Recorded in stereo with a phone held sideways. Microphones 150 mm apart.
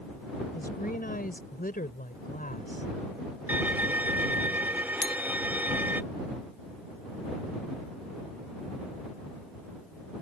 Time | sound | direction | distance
0.5 | a woman speaking | 85° left | ?
3.5 | a violin | 10° right (ahead or behind) | ?
5.0 | a clink | 30° left (ahead or behind) | ?